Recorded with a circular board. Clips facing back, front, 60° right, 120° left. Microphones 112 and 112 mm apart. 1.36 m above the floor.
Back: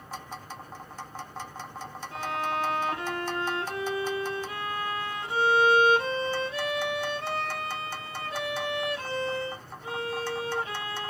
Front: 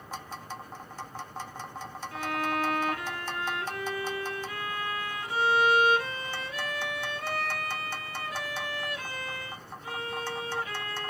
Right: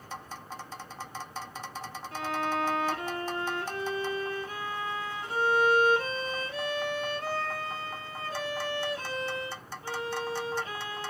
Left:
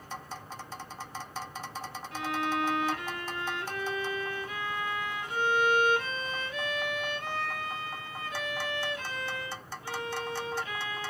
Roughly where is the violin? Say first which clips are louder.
Even, even; behind right.